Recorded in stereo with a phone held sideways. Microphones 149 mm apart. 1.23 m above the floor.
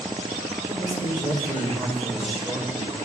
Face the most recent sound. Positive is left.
turn(degrees=50)  # may be behind; listen again after turning